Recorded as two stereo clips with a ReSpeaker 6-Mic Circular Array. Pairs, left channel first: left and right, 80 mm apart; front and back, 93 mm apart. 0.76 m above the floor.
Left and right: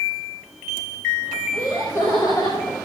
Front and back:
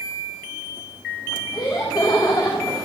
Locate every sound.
1.5 s laughter: 35° left, 5.5 m; by 2.8 s 55° left, 4.5 m